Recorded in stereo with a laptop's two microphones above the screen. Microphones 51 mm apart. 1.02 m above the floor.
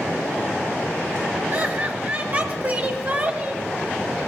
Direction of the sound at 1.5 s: 50° right (ahead or behind).